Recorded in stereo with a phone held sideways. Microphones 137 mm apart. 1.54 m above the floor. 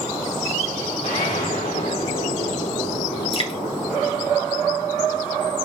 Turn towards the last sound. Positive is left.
turn(degrees=40)  # may be behind; listen again after turning